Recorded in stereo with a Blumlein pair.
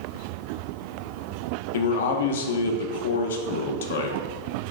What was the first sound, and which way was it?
A man speaking, 60° left.